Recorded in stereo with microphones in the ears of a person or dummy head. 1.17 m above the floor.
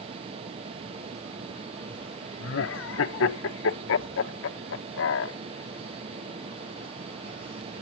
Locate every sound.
0.0 s a fan: 25° right (ahead or behind), 1.1 m
2.4 s laughter: 65° left (ahead or behind), 1.3 m